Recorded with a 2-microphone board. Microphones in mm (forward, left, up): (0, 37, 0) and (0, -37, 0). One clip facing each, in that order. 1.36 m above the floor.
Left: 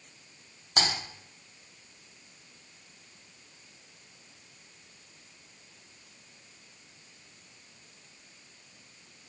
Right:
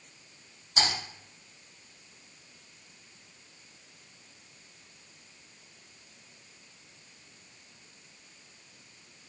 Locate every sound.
0.8 s typing on a keyboard: 55° left (ahead or behind), 0.7 m